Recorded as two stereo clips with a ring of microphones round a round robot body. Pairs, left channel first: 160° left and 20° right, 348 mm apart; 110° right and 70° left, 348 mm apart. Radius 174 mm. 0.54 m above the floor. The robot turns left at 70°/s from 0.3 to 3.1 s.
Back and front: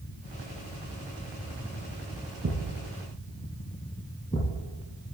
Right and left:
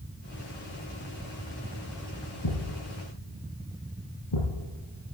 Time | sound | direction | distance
2.4 | a thud | 85° right | 3.5 m